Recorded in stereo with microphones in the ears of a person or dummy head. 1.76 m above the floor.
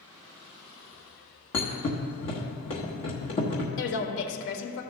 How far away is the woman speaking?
About 1.2 m.